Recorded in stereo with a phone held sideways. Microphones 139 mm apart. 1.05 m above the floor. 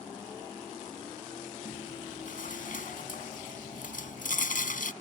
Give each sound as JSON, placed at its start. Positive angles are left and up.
{"t": 1.6, "sound": "chewing", "side_deg": 75}